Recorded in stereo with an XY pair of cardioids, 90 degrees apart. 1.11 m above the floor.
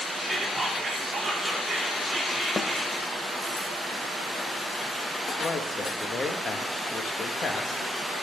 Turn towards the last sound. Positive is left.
turn(degrees=50)